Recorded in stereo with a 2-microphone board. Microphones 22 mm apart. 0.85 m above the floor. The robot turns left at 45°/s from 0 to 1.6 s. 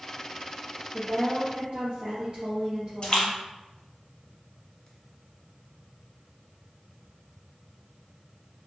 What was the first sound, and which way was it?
A woman speaking, 50° right (ahead or behind).